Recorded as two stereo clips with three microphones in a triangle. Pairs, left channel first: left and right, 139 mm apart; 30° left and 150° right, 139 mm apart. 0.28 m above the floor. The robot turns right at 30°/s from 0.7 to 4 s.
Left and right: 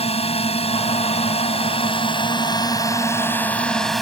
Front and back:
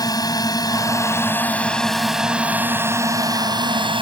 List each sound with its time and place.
0.0 s a drone: 80° left; by 4.0 s straight behind